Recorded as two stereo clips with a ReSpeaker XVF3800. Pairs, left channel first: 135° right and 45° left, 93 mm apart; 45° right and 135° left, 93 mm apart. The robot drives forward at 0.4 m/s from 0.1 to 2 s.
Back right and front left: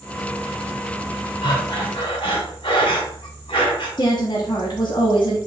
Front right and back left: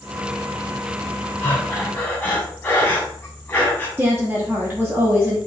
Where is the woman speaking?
155° right, 1.0 m.